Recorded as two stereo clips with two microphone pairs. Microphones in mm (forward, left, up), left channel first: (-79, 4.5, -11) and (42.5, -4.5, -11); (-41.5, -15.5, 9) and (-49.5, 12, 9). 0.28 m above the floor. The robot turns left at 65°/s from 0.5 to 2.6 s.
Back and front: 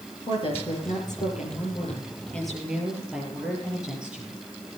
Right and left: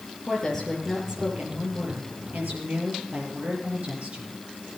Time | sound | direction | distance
0.3 | a woman speaking | 145° right | 6.5 m